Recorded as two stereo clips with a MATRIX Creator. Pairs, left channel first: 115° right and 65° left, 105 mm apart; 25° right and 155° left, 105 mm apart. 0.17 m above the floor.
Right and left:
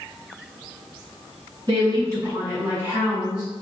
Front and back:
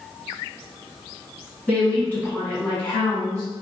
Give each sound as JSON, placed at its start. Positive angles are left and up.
{"t": 1.7, "sound": "a woman speaking", "azimuth_deg": 50, "distance_m": 1.6}